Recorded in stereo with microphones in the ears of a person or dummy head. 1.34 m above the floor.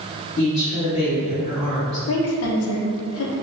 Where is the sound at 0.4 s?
35° left (ahead or behind), 1.7 m.